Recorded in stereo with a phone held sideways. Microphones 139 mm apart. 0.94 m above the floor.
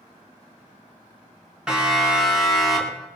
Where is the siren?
5° right (ahead or behind), 8 m; by 3.1 s 5° left (ahead or behind), 8.5 m.